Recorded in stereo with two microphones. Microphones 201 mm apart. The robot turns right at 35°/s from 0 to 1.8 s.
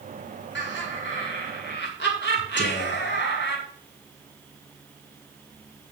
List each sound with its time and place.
0.6 s laughter: 70° left, 4.5 m; by 3.6 s 110° left, 4.5 m
2.6 s whispering: 75° left (ahead or behind), 1.4 m